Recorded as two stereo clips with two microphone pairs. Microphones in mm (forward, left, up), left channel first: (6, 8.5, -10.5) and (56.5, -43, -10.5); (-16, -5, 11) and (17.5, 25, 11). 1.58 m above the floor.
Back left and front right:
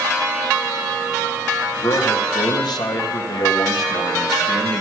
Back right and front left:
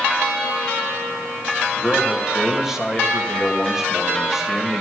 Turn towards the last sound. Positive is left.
turn(degrees=120)